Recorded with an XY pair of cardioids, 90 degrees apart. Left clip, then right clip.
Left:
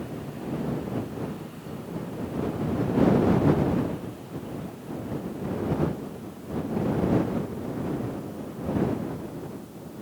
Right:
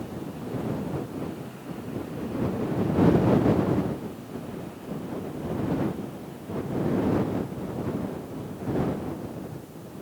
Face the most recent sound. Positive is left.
No sound to turn to.